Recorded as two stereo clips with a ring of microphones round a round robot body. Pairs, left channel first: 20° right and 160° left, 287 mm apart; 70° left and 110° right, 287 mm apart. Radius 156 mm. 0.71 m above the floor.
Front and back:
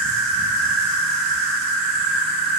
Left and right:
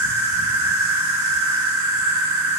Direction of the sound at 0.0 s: 145° right.